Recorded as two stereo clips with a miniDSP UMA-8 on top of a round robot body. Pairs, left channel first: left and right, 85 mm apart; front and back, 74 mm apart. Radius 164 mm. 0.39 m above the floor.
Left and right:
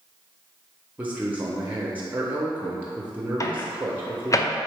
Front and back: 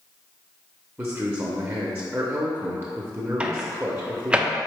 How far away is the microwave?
About 0.6 m.